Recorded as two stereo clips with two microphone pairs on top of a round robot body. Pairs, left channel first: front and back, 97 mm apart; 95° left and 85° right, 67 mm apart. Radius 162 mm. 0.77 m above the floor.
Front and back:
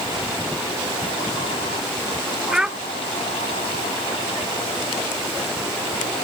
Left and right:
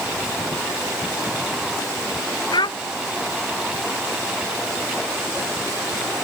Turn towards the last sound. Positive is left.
turn(degrees=100)